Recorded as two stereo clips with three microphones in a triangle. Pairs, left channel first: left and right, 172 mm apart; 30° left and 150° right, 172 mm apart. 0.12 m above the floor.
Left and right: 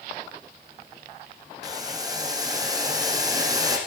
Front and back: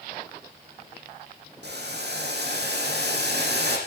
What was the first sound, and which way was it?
Boiling, 160° right.